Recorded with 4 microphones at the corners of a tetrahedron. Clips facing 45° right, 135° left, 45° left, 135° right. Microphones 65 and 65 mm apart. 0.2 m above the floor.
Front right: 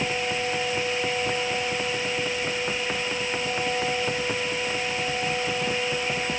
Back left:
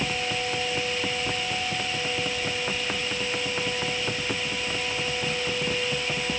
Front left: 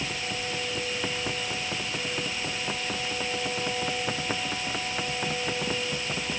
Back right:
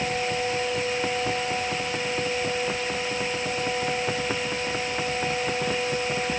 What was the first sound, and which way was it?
Only background noise.